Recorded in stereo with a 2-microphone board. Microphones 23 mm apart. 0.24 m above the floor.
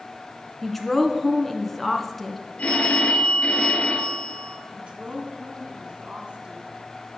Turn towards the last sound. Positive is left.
turn(degrees=-45)  # may be behind; listen again after turning